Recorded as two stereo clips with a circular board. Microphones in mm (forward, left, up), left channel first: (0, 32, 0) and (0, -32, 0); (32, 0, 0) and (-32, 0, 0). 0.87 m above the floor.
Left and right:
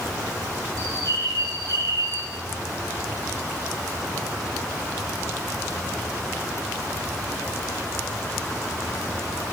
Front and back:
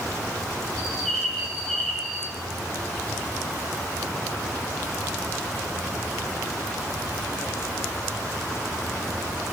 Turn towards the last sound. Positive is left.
turn(degrees=-80)